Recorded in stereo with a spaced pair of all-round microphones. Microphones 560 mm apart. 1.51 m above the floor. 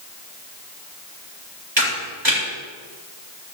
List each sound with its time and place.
1.8 s a camera shutter: 50° right (ahead or behind), 7 m